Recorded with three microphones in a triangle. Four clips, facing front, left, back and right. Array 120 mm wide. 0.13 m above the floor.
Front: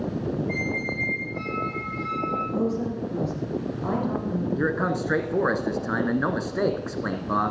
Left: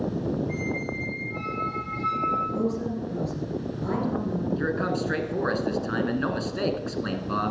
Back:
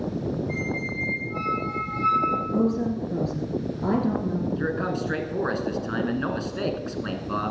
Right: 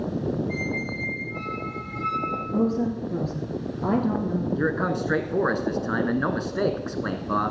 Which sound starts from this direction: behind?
A squeak, at 0.5 s.